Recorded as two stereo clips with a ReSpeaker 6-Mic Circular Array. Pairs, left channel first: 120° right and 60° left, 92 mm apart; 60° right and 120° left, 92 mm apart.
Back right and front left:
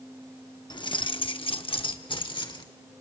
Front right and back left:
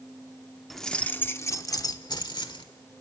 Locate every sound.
0.7 s keys jangling: 150° right, 0.8 m; by 2.7 s 90° right, 1.6 m